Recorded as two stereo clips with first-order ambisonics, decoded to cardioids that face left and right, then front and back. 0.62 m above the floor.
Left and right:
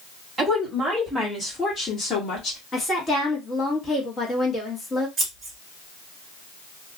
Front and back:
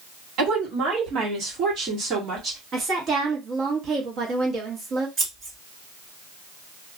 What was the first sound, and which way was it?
A woman speaking, 170° right.